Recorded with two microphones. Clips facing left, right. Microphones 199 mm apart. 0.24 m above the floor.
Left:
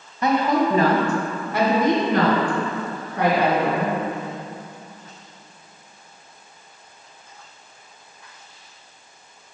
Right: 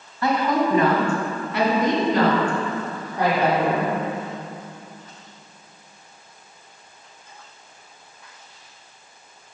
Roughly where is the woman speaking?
Left.